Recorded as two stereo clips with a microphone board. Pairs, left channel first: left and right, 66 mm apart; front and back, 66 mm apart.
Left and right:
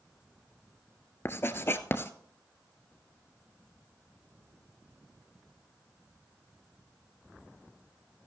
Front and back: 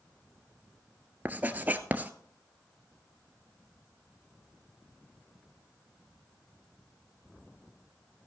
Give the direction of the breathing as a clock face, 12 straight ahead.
No breathing in this recording.